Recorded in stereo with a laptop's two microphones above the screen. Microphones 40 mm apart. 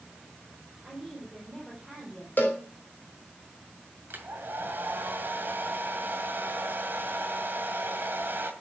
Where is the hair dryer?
65° right (ahead or behind), 2 m.